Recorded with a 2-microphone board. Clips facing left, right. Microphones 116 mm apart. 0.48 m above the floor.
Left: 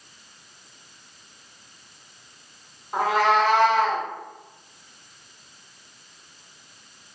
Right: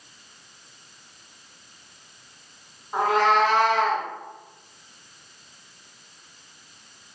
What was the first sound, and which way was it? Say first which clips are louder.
A cat meowing: even; centre (ahead or behind).